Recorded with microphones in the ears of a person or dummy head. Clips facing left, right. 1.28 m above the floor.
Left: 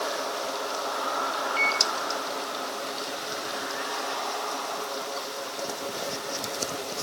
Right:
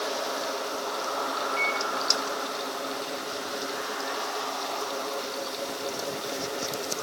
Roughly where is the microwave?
Left.